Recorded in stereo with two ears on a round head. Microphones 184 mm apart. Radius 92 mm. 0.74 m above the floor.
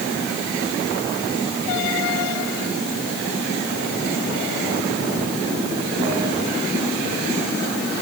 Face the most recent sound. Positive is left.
No sound to turn to.